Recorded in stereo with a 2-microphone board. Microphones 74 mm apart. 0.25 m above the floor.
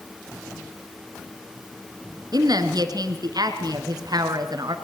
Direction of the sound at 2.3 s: 65° right (ahead or behind).